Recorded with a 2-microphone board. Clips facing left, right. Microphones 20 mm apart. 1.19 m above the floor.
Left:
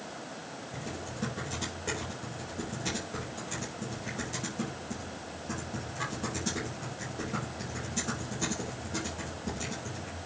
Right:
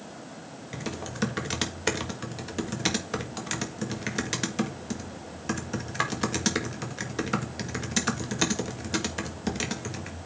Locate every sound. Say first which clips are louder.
0.7 s typing on a keyboard: right 7 dB; 70° right (ahead or behind), 1.7 m